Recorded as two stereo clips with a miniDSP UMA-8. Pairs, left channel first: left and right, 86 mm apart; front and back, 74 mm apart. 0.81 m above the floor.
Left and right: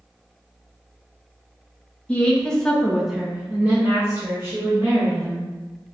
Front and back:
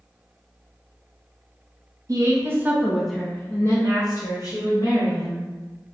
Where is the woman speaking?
160° left, 0.8 m; by 5.5 s 25° right, 1.7 m.